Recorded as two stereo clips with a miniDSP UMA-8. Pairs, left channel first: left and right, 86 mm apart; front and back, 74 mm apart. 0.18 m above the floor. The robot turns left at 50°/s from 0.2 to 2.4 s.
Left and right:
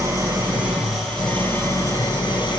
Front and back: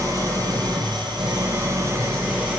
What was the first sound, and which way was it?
An engine running, 140° right.